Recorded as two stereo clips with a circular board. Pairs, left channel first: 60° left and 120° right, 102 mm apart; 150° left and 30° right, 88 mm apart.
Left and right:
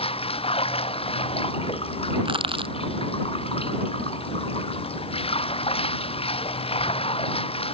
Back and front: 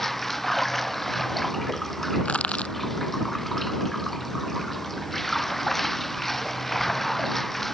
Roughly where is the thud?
I don't hear a thud.